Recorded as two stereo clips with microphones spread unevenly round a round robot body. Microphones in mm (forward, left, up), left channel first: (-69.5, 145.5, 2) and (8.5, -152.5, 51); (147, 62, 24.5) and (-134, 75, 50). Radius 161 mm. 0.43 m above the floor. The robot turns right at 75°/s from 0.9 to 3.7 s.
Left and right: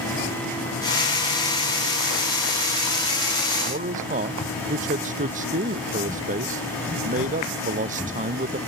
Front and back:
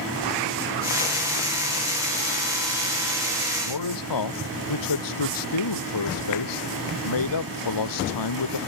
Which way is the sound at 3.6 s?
10° right.